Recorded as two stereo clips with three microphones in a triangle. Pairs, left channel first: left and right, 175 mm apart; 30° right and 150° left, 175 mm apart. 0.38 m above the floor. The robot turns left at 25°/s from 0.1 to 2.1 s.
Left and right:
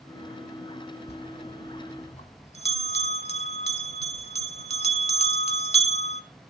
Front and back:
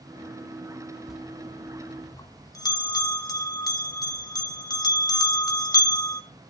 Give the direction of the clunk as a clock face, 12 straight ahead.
I don't hear a clunk.